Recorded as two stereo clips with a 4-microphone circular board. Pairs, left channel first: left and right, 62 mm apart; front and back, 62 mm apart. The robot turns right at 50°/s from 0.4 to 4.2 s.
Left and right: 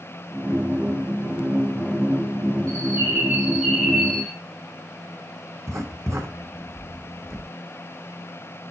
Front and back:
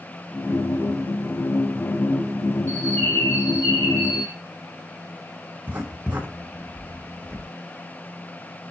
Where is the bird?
60° right, 3.5 m; by 4.3 s 15° left, 3.5 m.